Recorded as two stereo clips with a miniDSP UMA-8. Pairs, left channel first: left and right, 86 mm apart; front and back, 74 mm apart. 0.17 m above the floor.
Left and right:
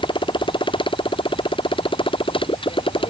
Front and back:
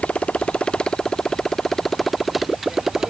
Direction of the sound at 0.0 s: 75° left.